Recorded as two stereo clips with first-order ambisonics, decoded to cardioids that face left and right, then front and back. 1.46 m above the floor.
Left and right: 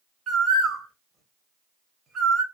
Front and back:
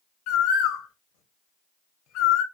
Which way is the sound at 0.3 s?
25° right.